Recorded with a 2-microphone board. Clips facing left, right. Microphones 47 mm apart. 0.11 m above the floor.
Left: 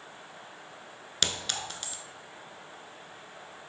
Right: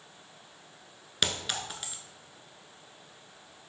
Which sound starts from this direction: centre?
A clink, at 1.2 s.